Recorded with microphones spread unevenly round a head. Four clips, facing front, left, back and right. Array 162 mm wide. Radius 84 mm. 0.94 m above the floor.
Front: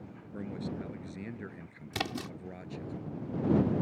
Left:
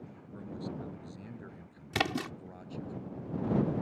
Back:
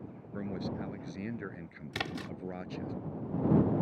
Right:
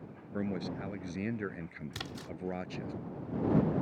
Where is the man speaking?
95° right; by 2.9 s 105° right.